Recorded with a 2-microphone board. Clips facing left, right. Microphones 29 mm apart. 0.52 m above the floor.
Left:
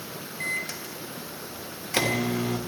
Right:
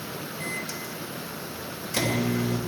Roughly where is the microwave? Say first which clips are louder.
Left 4 dB; left.